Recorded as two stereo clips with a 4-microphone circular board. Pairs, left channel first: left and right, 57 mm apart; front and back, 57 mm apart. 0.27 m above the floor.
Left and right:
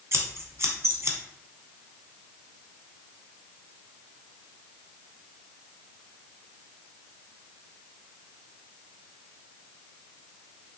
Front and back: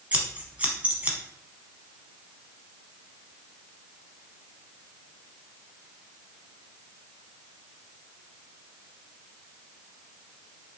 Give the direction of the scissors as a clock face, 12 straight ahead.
4 o'clock.